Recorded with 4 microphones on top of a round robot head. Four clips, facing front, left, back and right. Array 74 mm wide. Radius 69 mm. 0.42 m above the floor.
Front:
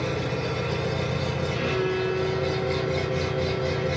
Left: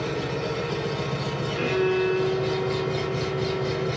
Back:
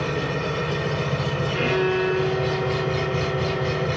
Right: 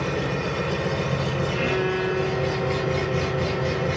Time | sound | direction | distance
0.0 | an engine running | 145° right | 1.1 m
1.5 | a violin | 170° right | 0.9 m